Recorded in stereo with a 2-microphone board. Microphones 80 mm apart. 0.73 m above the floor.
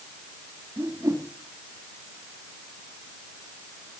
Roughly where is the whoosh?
Right.